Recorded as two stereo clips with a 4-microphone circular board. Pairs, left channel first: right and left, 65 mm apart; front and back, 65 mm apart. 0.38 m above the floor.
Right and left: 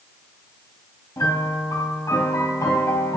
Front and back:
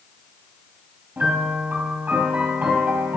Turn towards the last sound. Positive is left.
turn(degrees=-115)